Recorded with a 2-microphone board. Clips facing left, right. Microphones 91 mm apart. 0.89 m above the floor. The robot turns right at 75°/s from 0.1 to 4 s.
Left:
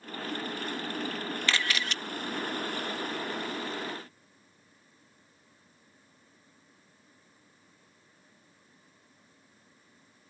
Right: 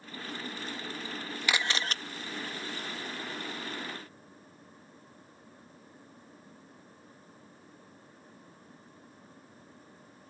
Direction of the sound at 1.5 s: 165° right.